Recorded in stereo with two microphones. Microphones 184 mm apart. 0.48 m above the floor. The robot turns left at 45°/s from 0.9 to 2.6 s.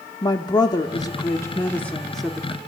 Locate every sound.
0.2 s a woman speaking: 20° left (ahead or behind), 0.7 m; by 2.6 s 5° right (ahead or behind), 0.7 m